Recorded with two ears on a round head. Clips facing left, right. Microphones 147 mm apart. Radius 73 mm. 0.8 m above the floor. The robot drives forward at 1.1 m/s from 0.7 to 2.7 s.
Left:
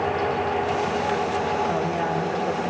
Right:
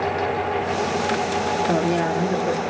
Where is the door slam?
I don't hear a door slam.